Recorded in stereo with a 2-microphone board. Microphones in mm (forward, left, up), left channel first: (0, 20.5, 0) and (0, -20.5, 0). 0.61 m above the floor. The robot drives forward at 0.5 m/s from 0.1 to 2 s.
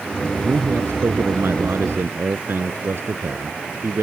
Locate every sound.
0.3 s a man speaking: 80° right; by 4.0 s 75° right (ahead or behind)